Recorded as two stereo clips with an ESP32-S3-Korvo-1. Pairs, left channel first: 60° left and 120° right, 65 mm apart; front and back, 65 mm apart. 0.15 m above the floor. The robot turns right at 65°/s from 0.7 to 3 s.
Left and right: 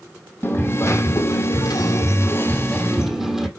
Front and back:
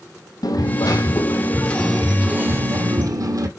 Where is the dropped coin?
5° left, 1.1 m; by 3.5 s 155° left, 1.1 m.